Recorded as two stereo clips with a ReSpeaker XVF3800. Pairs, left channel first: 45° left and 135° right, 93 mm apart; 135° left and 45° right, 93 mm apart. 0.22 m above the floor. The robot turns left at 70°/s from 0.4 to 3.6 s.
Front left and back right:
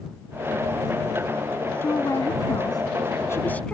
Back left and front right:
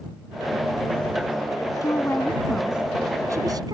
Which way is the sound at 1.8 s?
100° left.